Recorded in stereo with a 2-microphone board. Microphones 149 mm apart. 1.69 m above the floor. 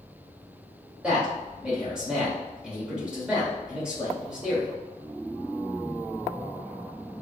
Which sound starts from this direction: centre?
A man speaking, at 1.0 s.